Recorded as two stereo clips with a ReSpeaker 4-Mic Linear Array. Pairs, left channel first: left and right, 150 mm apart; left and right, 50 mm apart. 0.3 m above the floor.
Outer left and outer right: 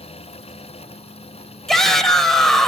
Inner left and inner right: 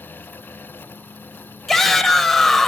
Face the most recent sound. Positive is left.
turn(degrees=5)  # may be behind; listen again after turning